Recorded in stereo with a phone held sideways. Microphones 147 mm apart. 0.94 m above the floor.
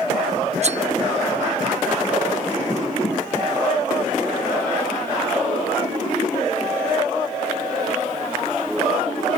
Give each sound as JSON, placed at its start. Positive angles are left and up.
{"t": 0.6, "sound": "cutlery clinking", "side_deg": -50}